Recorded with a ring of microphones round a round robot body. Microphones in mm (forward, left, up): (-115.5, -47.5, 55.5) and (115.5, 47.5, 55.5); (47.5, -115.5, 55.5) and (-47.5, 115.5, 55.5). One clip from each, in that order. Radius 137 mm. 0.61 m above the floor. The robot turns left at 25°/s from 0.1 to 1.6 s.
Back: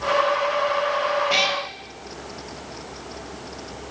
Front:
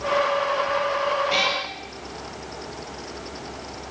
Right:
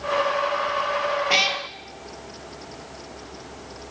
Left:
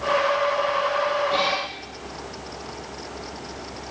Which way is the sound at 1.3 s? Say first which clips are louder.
Back 2 dB, right 2 dB; 85° right.